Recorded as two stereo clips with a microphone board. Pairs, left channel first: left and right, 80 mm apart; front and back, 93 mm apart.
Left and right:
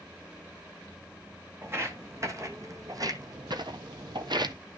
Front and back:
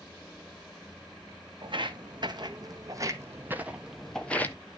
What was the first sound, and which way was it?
Footsteps, 150° right.